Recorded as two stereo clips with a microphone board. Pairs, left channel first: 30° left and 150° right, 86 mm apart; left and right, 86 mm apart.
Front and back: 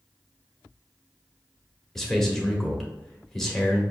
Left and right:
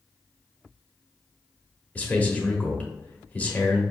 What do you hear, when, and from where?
1.9 s a man speaking: 100° left, 0.9 m